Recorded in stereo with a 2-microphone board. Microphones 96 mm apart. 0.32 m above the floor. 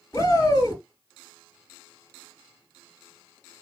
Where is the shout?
35° left (ahead or behind), 3.5 m.